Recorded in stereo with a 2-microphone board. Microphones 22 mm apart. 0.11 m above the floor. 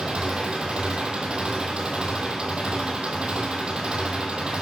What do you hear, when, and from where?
0.0 s an engine running: 50° right (ahead or behind), 1.5 m